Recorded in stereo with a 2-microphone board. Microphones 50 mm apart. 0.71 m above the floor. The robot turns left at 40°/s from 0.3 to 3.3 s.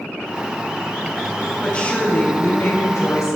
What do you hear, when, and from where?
1.6 s a woman speaking: 160° left, 4 m; by 3.4 s 95° left, 4 m